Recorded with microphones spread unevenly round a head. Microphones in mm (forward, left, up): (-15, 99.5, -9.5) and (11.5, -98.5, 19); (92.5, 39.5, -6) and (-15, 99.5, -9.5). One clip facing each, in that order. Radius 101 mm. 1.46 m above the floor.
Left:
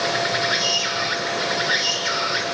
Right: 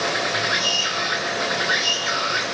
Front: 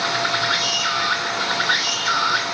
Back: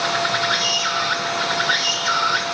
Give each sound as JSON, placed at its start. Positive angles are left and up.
{"t": 0.0, "sound": "an insect", "azimuth_deg": 65, "distance_m": 7.5}